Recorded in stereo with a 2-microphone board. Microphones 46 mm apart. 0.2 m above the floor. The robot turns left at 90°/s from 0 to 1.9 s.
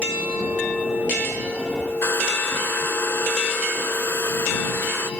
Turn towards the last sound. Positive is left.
turn(degrees=60)  # may be behind; listen again after turning